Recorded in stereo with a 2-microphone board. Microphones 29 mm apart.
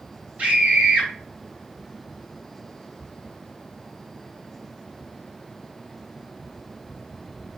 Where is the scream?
55° right (ahead or behind), 2 m.